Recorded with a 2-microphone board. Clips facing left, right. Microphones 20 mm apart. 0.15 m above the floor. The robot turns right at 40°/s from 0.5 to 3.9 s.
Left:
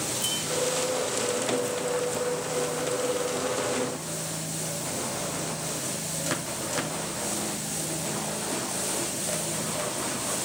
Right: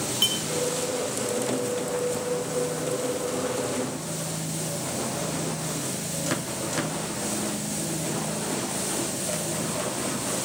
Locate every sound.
0.2 s a clink: 55° right (ahead or behind), 4 m